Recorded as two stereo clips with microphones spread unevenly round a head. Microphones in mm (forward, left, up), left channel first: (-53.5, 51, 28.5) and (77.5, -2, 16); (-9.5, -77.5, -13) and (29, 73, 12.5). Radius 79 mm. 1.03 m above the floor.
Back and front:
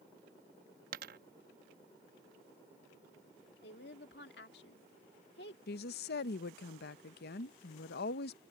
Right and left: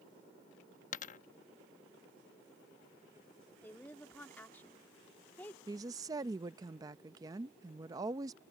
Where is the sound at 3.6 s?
175° left.